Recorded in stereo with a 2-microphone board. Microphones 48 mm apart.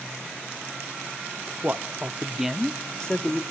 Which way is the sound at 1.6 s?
40° right (ahead or behind).